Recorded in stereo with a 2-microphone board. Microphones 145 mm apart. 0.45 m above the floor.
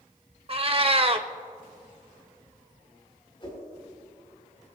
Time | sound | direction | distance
0.5 | a cat meowing | 40° right (ahead or behind) | 0.8 m
3.4 | a whoosh | 35° left (ahead or behind) | 5.5 m